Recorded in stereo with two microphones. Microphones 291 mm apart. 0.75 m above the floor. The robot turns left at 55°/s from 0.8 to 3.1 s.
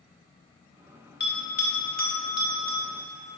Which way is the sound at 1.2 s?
40° left (ahead or behind).